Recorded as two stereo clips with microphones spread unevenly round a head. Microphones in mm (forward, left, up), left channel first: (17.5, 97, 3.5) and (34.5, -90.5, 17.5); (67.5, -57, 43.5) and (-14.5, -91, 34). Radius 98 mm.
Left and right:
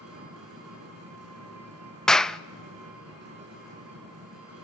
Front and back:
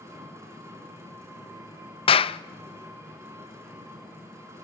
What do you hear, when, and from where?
0.0 s an engine running: 100° right, 6 m
2.1 s a clap: 5° left, 0.5 m